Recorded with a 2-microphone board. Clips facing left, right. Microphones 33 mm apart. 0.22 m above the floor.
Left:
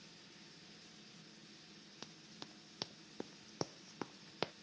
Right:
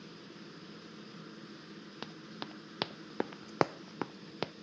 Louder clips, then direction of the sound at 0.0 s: Right 9 dB; 60° right (ahead or behind).